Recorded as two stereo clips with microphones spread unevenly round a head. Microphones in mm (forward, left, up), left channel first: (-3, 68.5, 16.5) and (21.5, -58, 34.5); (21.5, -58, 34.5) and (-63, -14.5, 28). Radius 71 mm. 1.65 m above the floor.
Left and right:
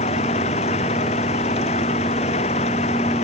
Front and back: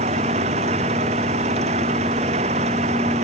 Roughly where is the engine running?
Behind left.